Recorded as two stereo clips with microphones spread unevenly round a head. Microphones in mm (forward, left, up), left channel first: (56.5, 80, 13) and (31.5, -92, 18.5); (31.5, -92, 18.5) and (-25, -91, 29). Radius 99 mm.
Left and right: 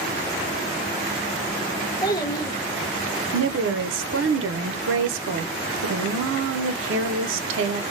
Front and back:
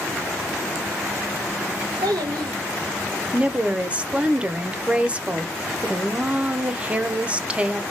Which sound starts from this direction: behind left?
A child speaking, at 2.0 s.